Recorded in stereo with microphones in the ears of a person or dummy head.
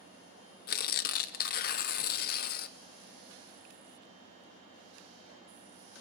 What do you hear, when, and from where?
0.7 s tearing paper: 55° left (ahead or behind), 0.8 m